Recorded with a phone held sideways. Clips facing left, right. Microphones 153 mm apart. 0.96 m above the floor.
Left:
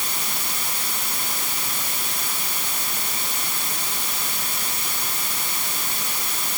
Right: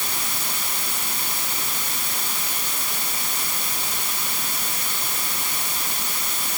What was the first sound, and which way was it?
Only background noise.